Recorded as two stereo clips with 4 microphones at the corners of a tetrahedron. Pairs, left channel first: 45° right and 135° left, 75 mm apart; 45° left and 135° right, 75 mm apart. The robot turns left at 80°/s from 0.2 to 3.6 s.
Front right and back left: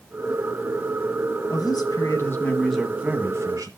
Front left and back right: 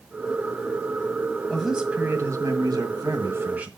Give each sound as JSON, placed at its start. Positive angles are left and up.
{"t": 1.5, "sound": "a man speaking", "azimuth_deg": -35, "distance_m": 1.8}